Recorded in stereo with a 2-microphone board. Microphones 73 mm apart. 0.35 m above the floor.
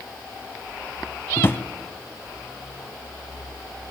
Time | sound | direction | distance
1.4 | a drawer | 35° left (ahead or behind) | 0.8 m